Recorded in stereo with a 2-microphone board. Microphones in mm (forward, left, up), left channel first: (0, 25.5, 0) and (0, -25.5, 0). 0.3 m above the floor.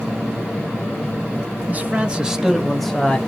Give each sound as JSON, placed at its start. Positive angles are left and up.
{"t": 1.7, "sound": "a man speaking", "side_deg": -30, "distance_m": 1.0}